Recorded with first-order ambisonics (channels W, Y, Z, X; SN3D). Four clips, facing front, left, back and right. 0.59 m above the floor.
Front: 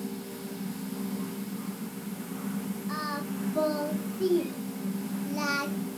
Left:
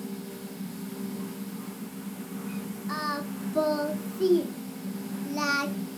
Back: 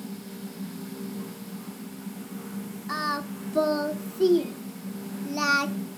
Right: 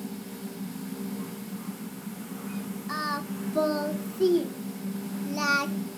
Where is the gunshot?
No gunshot in this recording.